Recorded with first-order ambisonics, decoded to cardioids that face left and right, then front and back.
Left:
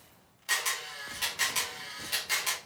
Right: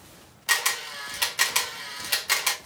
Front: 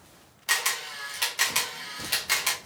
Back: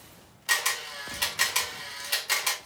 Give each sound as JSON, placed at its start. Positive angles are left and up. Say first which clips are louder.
{"t": 0.5, "sound": "a camera shutter", "louder": "right 6 dB, even", "azimuth_deg": -75, "distance_m": 1.1}